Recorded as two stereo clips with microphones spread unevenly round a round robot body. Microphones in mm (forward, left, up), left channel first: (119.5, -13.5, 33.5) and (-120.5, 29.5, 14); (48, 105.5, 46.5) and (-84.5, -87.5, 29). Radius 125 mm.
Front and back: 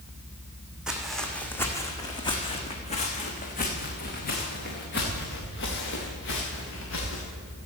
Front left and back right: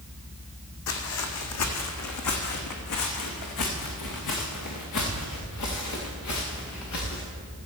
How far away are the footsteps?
About 1.9 m.